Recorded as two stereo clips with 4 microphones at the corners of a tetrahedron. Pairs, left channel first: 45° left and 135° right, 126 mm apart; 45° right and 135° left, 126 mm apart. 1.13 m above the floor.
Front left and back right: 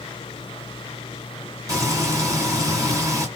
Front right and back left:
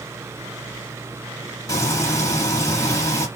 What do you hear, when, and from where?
1.7 s frying: 95° right, 1.1 m